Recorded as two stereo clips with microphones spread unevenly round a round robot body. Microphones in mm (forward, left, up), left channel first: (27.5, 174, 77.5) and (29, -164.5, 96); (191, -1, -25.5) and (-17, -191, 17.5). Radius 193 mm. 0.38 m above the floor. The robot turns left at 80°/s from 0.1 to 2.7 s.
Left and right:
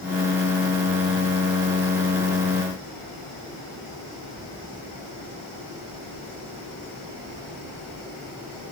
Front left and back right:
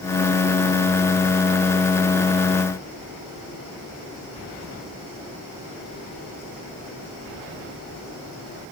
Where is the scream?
I don't hear a scream.